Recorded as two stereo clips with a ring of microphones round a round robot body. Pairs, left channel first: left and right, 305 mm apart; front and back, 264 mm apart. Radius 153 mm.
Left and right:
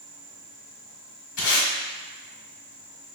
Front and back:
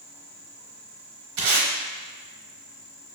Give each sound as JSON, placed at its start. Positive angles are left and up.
{"t": 1.4, "sound": "tape being pulled", "azimuth_deg": 155, "distance_m": 0.9}